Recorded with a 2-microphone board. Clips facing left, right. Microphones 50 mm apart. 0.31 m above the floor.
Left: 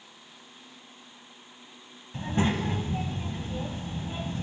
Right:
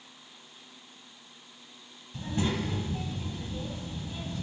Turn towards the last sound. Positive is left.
turn(degrees=40)  # may be behind; listen again after turning